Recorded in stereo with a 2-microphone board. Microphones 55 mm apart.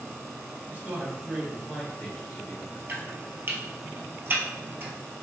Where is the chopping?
40° right (ahead or behind), 1.1 m.